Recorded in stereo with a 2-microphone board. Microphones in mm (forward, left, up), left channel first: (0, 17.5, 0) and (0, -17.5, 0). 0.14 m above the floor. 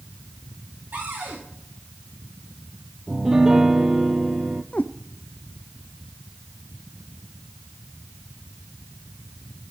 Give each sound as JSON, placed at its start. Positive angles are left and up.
{"t": 0.9, "sound": "a cupboard door", "side_deg": -80, "distance_m": 8.0}
{"t": 3.1, "sound": "a piano", "side_deg": -15, "distance_m": 0.6}
{"t": 4.7, "sound": "a cat meowing", "side_deg": 50, "distance_m": 0.7}